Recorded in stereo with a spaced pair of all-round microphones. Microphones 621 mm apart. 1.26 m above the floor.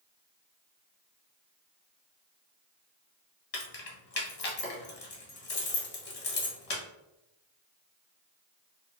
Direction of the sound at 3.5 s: 65° left (ahead or behind).